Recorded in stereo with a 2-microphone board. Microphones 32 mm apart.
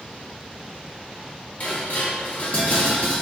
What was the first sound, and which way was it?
Dishes clattering, 45° left (ahead or behind).